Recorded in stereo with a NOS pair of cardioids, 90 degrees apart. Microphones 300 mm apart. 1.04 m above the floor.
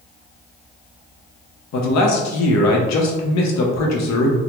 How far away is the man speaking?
About 0.8 m.